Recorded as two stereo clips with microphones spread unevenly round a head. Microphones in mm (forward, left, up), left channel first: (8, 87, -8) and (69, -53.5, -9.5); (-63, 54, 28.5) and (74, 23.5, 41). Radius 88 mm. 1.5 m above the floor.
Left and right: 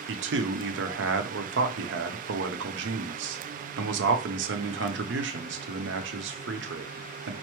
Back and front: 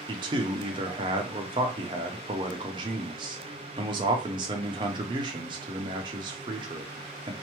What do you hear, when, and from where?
0.1 s a man speaking: 75° right, 0.7 m